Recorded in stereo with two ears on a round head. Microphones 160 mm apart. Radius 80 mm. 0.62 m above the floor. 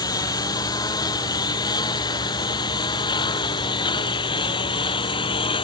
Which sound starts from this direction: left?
A lawn mower, at 0.0 s.